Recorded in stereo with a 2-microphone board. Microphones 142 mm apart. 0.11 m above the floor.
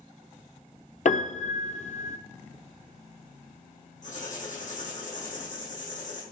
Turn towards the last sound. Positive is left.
turn(degrees=65)  # may be behind; listen again after turning